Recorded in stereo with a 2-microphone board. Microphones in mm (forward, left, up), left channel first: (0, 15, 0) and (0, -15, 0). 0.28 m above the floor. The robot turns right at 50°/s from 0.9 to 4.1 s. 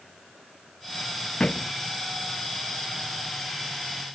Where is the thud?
35° left (ahead or behind); by 1.7 s 20° left (ahead or behind).